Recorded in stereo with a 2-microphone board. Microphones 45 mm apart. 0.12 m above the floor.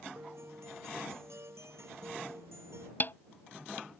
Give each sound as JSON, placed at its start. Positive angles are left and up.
{"t": 0.1, "sound": "a guitar", "side_deg": -80}
{"t": 3.0, "sound": "a snare drum", "side_deg": 50}